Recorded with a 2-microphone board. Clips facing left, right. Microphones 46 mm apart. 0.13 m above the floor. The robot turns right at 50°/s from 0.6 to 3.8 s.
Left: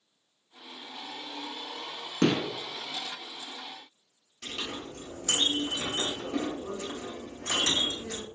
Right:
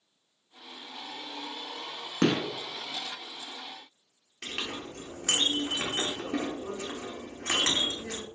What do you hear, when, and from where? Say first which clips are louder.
2.2 s a gunshot: even; 20° right (ahead or behind), 0.9 m; by 2.4 s 25° right (ahead or behind), 0.9 m
4.4 s a clink: right 1 dB; 60° right (ahead or behind), 1.4 m